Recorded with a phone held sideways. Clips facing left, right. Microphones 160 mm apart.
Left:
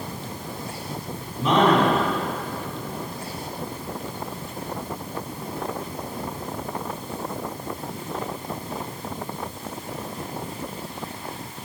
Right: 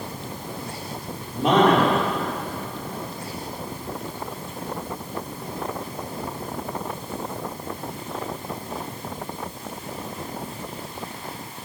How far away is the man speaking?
About 4.5 m.